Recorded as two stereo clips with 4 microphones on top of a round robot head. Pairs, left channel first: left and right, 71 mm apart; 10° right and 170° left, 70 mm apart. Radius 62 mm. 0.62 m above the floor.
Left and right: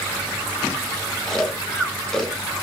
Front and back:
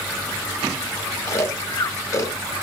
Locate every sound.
1.3 s snoring: 10° left, 0.8 m